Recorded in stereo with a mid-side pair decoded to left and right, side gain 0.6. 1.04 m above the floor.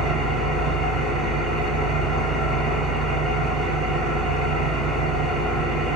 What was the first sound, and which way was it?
An engine running, 65° right.